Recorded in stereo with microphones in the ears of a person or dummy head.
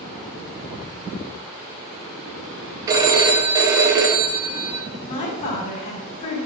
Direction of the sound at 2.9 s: 25° right (ahead or behind).